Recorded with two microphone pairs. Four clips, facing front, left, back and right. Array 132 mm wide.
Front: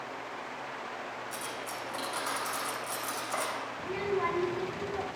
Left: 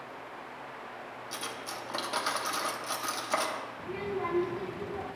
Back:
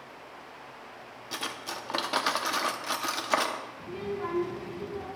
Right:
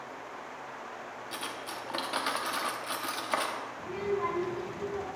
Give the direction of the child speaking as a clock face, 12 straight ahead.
12 o'clock.